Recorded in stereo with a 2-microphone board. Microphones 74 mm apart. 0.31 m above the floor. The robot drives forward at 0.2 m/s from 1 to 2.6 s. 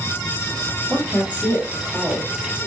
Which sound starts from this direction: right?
A woman speaking, at 0.9 s.